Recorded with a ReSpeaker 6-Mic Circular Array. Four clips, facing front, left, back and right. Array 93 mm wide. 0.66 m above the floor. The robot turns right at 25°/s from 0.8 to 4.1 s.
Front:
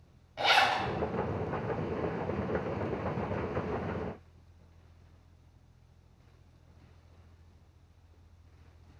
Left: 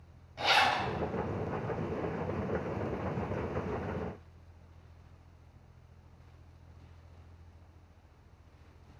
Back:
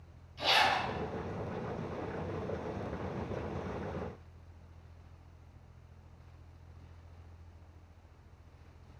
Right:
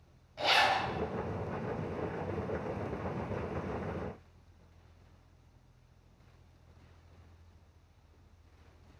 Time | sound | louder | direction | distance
0.4 | a zipper | left 1 dB, front 3 dB | 5° left | 1.2 m